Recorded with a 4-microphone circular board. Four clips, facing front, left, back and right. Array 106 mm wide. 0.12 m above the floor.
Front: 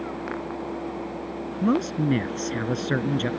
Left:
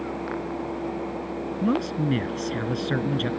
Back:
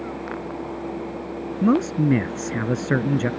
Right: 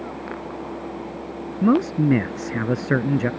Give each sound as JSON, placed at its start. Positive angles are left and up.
{"t": 1.6, "sound": "a man speaking", "azimuth_deg": -115}